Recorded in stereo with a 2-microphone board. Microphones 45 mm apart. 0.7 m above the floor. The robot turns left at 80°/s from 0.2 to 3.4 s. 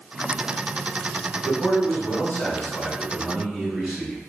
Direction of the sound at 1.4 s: 145° left.